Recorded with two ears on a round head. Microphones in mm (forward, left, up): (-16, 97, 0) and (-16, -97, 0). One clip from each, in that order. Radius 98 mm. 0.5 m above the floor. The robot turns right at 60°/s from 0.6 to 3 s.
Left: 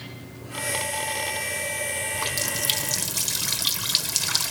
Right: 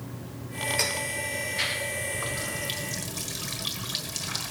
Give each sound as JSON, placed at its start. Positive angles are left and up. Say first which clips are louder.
{"t": 2.1, "sound": "a running tap", "louder": "left 4 dB", "azimuth_deg": 80, "distance_m": 1.4}